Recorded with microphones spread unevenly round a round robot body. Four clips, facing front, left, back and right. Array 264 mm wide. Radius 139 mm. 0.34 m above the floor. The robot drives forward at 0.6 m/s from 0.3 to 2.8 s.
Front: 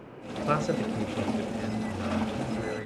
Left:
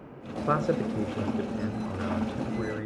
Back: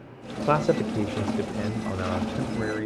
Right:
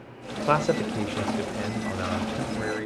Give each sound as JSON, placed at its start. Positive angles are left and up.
{"t": 0.5, "sound": "a man speaking", "azimuth_deg": -175, "distance_m": 1.0}